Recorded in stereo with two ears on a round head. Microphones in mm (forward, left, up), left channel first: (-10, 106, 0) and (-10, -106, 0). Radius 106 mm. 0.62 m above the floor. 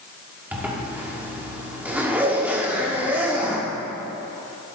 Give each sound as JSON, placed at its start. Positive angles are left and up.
{"t": 0.5, "sound": "a zipper", "side_deg": -10, "distance_m": 1.6}